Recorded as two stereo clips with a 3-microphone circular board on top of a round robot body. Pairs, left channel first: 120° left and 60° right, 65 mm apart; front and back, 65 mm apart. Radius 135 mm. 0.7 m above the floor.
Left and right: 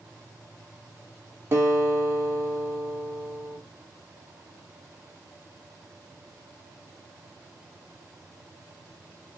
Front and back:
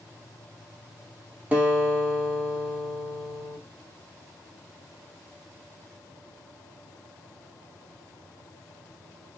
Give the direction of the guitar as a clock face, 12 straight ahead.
4 o'clock.